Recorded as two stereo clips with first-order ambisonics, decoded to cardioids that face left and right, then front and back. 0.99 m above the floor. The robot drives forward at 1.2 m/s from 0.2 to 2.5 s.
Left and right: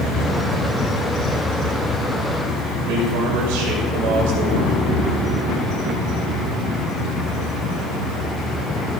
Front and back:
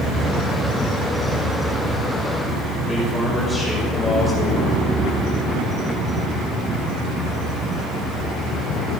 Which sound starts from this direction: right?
A man speaking, at 2.8 s.